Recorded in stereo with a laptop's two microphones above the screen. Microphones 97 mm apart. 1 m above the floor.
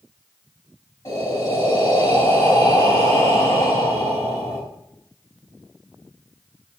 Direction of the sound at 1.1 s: 35° left (ahead or behind).